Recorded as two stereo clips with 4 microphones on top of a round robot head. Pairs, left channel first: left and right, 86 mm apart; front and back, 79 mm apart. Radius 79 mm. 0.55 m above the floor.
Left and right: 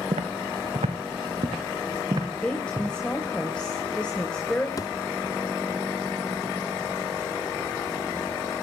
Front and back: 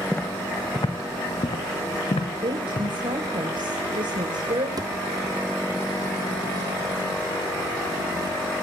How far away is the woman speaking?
About 2.5 m.